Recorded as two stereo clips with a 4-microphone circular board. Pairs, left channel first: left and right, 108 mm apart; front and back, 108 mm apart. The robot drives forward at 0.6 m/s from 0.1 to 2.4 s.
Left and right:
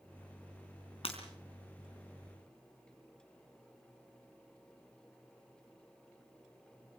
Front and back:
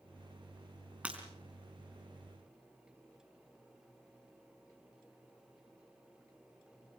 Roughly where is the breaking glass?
Left.